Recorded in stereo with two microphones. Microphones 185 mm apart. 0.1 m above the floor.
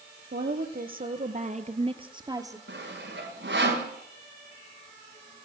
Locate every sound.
0.3 s a woman speaking: 60° right (ahead or behind), 2.5 m; by 2.6 s 15° right (ahead or behind), 2.5 m
2.7 s sawing: 80° right, 8.5 m